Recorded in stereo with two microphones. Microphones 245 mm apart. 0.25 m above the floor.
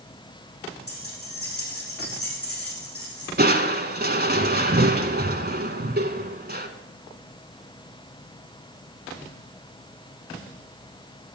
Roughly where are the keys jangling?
Left.